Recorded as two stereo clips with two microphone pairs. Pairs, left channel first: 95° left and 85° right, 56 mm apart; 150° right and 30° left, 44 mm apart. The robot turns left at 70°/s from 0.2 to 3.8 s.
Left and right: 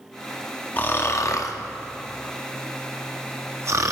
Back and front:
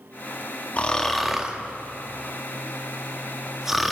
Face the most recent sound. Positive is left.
turn(degrees=-60)